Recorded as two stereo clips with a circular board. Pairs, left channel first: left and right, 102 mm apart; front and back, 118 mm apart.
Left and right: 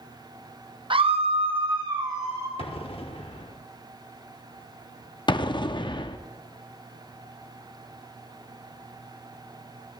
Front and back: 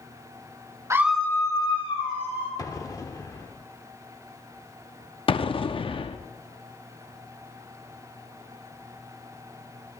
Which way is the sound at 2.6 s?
60° left.